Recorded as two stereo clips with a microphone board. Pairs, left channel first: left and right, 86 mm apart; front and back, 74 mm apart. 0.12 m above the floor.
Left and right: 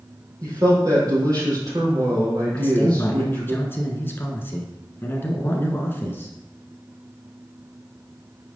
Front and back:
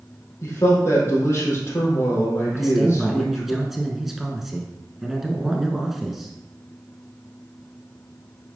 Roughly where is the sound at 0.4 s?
Ahead right.